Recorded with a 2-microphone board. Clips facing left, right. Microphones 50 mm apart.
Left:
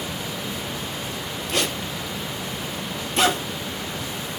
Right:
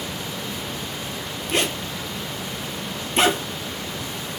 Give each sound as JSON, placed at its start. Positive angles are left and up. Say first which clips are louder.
{"t": 1.5, "sound": "a zipper", "louder": "right 2 dB", "side_deg": -30, "distance_m": 1.0}